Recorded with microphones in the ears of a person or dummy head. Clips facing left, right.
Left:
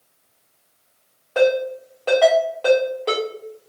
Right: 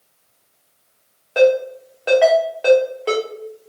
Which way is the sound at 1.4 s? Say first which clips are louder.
Right 3 dB; 10° right (ahead or behind).